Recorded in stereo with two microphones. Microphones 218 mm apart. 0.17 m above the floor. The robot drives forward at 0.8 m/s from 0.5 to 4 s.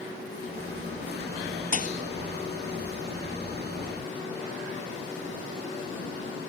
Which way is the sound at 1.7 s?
45° left (ahead or behind).